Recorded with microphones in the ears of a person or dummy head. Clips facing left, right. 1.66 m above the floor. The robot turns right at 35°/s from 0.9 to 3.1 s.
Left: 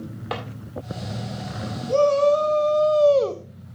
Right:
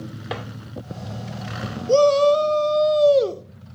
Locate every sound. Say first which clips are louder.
0.3 s a drawer: left 1 dB; 10° right (ahead or behind), 2 m
1.9 s a shout: right 2 dB; 65° right, 0.7 m; by 3.5 s 25° right, 0.7 m